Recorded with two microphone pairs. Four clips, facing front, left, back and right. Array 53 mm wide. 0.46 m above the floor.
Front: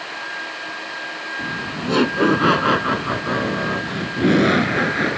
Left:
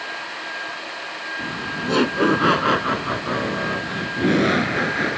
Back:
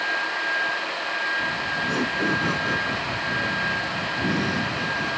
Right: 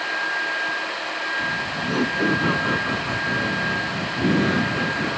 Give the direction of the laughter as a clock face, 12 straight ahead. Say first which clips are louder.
Right 2 dB, back 1 dB; 10 o'clock.